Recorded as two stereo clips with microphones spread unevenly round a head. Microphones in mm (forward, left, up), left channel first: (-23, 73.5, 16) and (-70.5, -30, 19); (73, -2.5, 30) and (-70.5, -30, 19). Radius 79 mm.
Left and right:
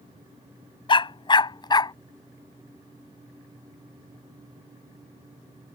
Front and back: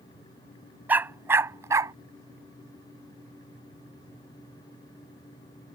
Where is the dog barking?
110° left; by 1.9 s 115° left.